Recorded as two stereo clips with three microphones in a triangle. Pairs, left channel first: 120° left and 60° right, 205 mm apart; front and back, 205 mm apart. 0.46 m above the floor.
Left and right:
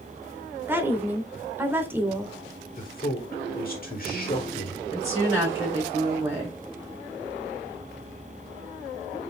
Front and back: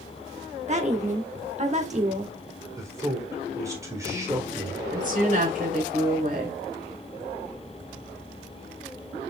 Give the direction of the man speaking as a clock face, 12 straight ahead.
8 o'clock.